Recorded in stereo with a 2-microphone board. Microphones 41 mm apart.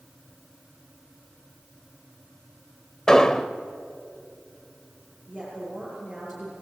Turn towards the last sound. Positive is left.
turn(degrees=-5)  # may be behind; listen again after turning